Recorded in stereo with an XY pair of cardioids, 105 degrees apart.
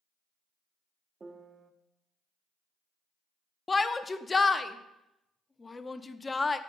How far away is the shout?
About 0.5 m.